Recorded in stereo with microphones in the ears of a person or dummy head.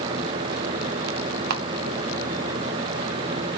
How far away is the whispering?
I don't hear whispering.